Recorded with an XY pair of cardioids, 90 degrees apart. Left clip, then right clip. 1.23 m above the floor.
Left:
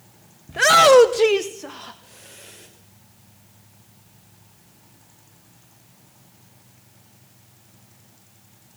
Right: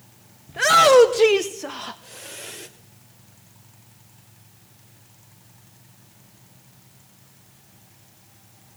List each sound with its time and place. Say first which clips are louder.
0.5 s a shout: left 2 dB; 45° left, 0.8 m; by 2.7 s 55° right, 1.3 m